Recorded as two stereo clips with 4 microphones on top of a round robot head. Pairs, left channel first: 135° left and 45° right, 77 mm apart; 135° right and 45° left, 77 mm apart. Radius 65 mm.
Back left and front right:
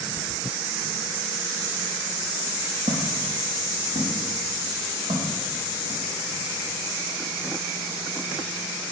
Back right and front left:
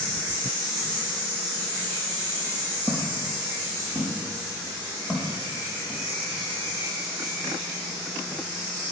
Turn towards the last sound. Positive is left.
turn(degrees=-35)